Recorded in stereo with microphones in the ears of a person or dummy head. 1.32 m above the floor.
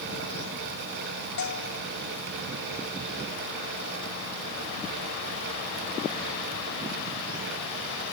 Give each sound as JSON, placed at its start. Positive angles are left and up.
{"t": 1.4, "sound": "a bell", "side_deg": 75}